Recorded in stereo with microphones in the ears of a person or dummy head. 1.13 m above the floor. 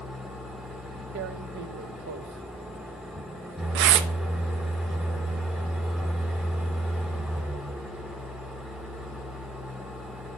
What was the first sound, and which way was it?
An engine running, centre (ahead or behind).